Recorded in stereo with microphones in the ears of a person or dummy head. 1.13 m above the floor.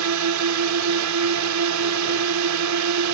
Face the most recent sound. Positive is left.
turn(degrees=-80)